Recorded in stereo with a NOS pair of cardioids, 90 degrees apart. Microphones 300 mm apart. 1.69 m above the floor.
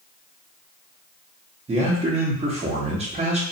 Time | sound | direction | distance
1.7 | a man speaking | 20° right | 0.7 m